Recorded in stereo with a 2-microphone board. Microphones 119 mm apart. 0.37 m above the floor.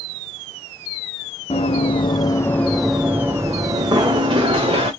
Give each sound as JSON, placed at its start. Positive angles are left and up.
{"t": 1.5, "sound": "running footsteps", "side_deg": 60, "distance_m": 1.0}